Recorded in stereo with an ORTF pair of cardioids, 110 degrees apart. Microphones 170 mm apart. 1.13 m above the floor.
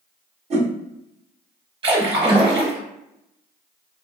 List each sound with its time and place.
0.5 s a whoosh: 40° right, 0.9 m
1.8 s a splash: 30° right, 1.0 m